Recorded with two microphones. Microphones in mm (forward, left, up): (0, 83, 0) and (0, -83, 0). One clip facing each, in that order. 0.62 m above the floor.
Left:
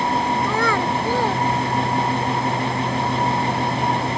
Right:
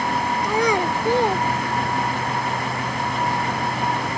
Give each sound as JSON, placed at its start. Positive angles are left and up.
{"t": 0.4, "sound": "a child speaking", "side_deg": -15}